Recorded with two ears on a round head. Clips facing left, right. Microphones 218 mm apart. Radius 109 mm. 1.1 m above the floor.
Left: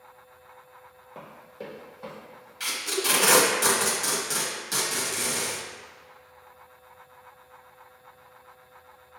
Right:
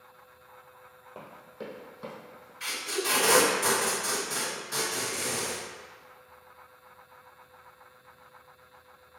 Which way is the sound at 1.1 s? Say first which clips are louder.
Left 1 dB; 10° right (ahead or behind).